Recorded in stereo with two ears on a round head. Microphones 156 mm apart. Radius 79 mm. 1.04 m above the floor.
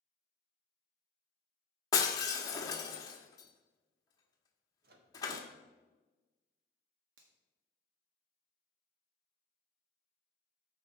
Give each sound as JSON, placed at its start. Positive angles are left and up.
{"t": 1.9, "sound": "breaking glass", "side_deg": 25, "distance_m": 1.3}
{"t": 4.8, "sound": "a microwave", "side_deg": -65, "distance_m": 1.1}
{"t": 7.2, "sound": "a finger snap", "side_deg": -85, "distance_m": 1.7}